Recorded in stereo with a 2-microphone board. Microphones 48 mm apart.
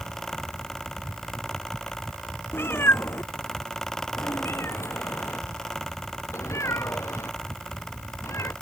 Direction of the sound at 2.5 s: 55° left (ahead or behind).